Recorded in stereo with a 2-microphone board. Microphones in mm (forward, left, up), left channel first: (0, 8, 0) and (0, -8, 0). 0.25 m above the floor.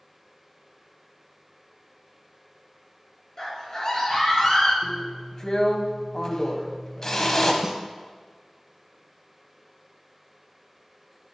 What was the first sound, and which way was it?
A scream, 35° left (ahead or behind).